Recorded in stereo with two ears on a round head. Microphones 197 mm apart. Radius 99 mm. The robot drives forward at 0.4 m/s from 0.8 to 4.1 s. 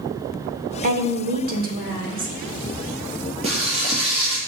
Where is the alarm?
I don't hear an alarm.